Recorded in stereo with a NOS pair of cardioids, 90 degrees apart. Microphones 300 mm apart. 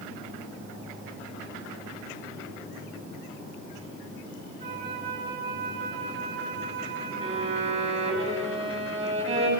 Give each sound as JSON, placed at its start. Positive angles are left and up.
{"t": 4.6, "sound": "a flute", "azimuth_deg": -35, "distance_m": 6.0}
{"t": 7.2, "sound": "a violin", "azimuth_deg": -40, "distance_m": 8.5}